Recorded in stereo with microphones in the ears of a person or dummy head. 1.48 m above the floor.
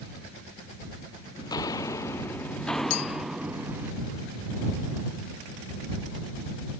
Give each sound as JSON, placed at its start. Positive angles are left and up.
{"t": 1.4, "sound": "footsteps", "side_deg": 25}
{"t": 2.9, "sound": "a clink", "side_deg": 90}